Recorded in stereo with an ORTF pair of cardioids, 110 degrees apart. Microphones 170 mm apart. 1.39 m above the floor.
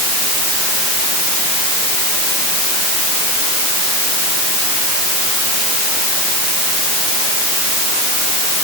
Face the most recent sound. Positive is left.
No sound to turn to.